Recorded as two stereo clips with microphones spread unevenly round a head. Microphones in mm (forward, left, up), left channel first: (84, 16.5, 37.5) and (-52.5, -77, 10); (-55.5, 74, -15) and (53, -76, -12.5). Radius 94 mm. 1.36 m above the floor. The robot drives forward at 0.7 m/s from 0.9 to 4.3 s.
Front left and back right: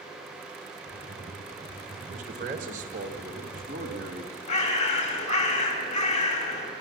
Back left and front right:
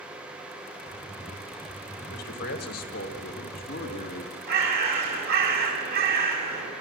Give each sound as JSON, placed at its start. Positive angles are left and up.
{"t": 2.1, "sound": "a man speaking", "azimuth_deg": 165, "distance_m": 1.6}
{"t": 4.5, "sound": "a bird", "azimuth_deg": -15, "distance_m": 2.5}